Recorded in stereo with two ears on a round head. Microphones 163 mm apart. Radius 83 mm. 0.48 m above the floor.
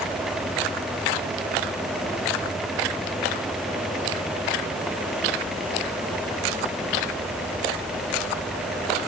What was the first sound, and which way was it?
Only background noise.